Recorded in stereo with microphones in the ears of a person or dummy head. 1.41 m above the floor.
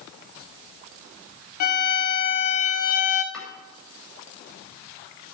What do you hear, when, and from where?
1.6 s a violin: 45° left (ahead or behind), 1.3 m
3.3 s chopping: 5° left (ahead or behind), 8 m